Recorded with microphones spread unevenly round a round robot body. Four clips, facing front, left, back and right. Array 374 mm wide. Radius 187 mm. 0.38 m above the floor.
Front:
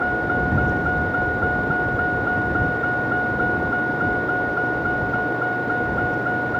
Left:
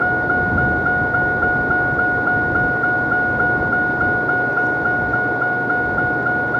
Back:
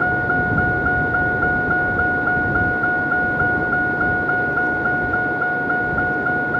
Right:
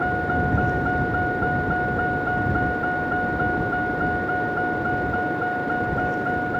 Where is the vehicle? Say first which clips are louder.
Left 5 dB, back 2 dB; 155° left.